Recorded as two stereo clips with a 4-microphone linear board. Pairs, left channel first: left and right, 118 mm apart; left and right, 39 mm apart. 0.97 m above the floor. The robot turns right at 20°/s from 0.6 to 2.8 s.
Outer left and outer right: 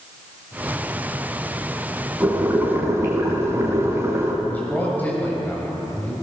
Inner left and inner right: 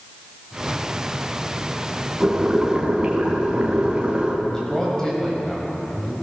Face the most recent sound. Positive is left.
turn(degrees=15)  # may be behind; listen again after turning